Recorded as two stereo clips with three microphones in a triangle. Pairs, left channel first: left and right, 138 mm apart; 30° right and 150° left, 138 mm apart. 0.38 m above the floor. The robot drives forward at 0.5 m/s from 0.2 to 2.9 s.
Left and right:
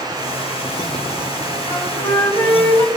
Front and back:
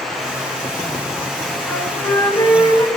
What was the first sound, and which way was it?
A flute, 15° left.